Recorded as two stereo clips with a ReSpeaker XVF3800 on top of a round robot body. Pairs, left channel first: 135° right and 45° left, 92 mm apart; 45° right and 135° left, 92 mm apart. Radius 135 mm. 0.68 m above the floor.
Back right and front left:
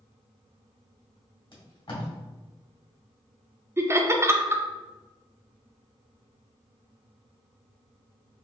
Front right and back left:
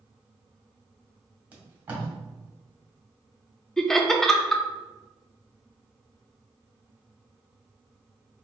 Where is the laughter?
35° left, 0.7 m.